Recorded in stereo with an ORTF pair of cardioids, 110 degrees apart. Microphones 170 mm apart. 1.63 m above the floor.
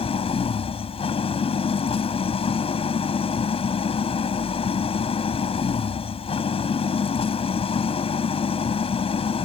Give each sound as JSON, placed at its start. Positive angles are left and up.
{"t": 0.0, "sound": "an engine running", "azimuth_deg": 35}